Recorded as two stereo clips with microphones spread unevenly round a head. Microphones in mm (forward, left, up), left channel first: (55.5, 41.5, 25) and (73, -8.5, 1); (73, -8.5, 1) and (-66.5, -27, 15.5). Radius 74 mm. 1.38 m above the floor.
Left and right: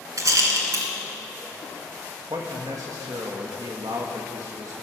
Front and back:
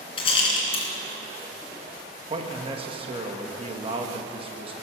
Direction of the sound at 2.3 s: 120° right.